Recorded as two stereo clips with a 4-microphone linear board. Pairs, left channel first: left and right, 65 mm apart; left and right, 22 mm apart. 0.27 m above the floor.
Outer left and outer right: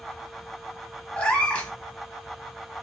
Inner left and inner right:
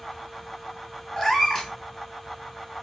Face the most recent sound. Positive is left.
turn(degrees=20)  # may be behind; listen again after turning